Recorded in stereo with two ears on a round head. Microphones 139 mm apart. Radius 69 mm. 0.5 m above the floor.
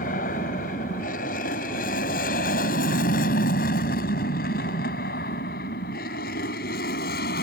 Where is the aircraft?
55° left (ahead or behind); by 7.4 s 65° left (ahead or behind).